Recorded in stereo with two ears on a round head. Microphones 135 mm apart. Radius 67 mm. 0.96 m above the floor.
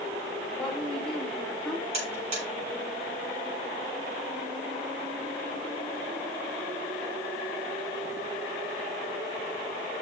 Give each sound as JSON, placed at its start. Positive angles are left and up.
{"t": 0.6, "sound": "a woman speaking", "side_deg": 5, "distance_m": 3.0}
{"t": 1.9, "sound": "a buzzer", "side_deg": -45, "distance_m": 6.0}